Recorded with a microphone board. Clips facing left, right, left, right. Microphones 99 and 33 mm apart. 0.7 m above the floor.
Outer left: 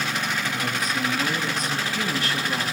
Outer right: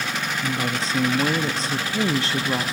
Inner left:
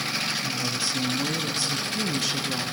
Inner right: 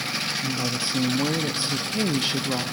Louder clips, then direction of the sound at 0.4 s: Outer right 2 dB, inner right 1 dB; 30° right (ahead or behind).